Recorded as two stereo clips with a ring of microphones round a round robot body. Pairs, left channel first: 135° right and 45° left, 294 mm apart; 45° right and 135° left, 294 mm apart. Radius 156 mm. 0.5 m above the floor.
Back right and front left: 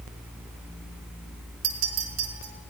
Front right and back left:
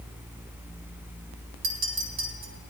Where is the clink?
85° left, 3 m.